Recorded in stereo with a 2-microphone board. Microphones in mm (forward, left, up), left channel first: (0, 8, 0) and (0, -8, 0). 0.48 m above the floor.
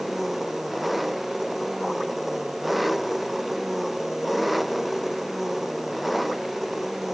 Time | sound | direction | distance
0.0 | an engine running | 5° right (ahead or behind) | ?